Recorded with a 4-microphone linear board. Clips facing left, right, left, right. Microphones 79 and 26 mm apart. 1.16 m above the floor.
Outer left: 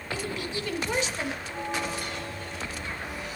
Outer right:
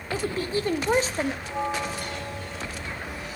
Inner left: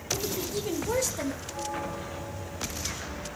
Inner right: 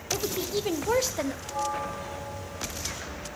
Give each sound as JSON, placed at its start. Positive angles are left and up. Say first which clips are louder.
{"t": 0.1, "sound": "a woman speaking", "louder": "outer right 6 dB, inner right 2 dB", "side_deg": -35, "distance_m": 1.3}
{"t": 1.4, "sound": "a bell", "louder": "outer right 3 dB, inner right 3 dB", "side_deg": -80, "distance_m": 3.0}